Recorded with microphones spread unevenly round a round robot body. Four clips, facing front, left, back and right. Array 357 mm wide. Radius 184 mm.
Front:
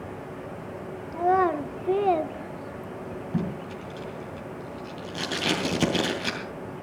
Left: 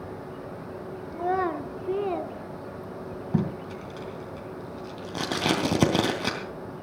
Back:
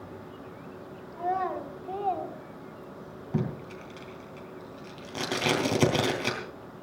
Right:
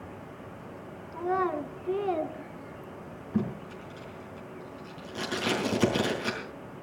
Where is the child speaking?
30° left, 1.4 m; by 3.2 s 45° right, 1.3 m.